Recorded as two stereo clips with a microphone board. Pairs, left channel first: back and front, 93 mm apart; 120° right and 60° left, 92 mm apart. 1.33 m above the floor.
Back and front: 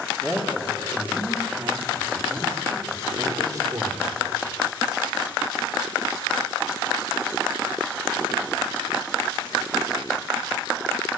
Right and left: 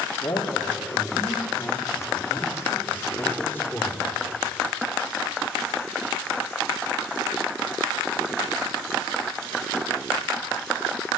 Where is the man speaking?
80° right, 3.5 m; by 4.2 s 50° right, 4.5 m.